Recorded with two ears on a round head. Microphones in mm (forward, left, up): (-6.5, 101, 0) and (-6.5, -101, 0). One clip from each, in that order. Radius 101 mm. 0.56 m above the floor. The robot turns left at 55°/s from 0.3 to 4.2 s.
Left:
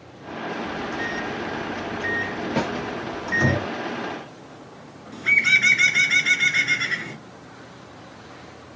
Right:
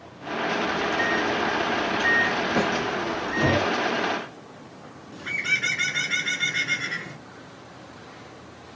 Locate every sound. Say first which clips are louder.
0.6 s a microwave: right 4 dB; 30° right (ahead or behind), 0.7 m; by 3.6 s 40° left (ahead or behind), 0.7 m
2.6 s a snare drum: left 1 dB; 35° left (ahead or behind), 1.1 m; by 2.7 s 30° left (ahead or behind), 1.1 m
5.1 s a bird: left 8 dB; 25° left (ahead or behind), 1.4 m